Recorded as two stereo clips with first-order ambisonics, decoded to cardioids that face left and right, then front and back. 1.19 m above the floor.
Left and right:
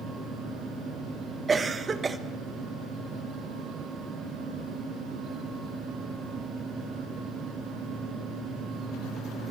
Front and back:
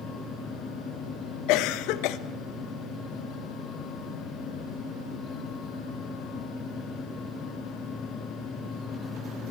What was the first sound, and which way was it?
A cough, 20° right.